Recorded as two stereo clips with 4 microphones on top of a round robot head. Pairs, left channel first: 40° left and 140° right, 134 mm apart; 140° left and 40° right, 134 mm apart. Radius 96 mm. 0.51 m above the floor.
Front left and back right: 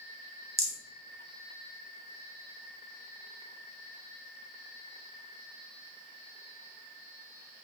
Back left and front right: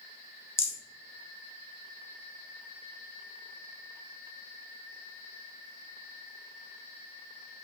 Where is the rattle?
Straight behind, 1.1 m.